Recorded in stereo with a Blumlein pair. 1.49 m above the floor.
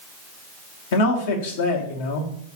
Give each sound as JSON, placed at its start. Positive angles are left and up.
{"t": 0.9, "sound": "a man speaking", "azimuth_deg": 50, "distance_m": 1.2}